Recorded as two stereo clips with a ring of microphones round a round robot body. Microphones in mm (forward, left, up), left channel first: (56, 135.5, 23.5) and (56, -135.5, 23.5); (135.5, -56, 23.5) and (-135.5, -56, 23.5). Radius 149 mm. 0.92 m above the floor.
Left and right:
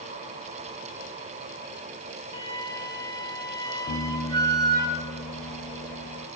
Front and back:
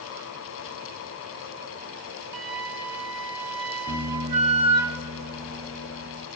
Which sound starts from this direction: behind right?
A flute, at 2.3 s.